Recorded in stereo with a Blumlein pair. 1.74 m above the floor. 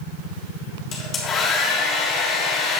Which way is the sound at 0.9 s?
25° left.